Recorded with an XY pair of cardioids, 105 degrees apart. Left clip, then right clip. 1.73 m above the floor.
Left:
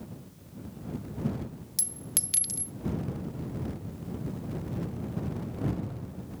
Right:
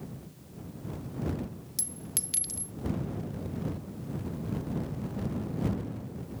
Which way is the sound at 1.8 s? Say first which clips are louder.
Left 3 dB; 25° left.